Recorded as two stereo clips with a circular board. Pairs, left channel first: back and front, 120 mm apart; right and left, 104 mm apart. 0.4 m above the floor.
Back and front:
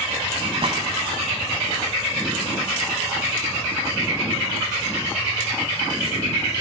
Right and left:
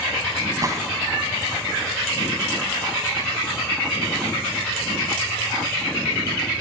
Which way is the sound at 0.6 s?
35° left.